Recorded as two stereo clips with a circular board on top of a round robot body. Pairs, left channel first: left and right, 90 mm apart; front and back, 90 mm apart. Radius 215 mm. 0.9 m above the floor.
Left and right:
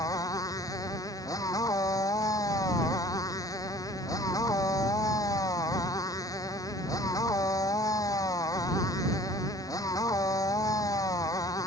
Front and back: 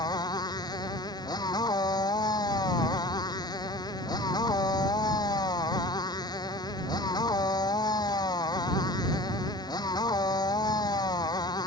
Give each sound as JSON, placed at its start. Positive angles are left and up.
{"t": 0.0, "sound": "a motorcycle", "azimuth_deg": 40}